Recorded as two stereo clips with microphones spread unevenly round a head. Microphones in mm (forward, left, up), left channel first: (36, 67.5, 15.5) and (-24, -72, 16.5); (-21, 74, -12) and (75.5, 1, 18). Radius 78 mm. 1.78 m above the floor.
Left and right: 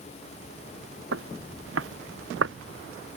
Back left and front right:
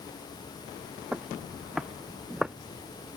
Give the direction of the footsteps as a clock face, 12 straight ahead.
4 o'clock.